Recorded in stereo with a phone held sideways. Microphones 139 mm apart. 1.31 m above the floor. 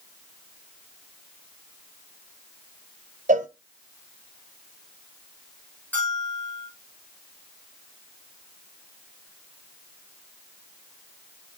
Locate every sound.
3.3 s a cowbell: 65° right (ahead or behind), 0.5 m
5.9 s a bell: 15° left (ahead or behind), 6.5 m